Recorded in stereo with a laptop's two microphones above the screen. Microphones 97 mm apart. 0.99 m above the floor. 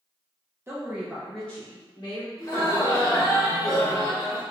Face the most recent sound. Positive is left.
turn(degrees=35)  # may be behind; listen again after turning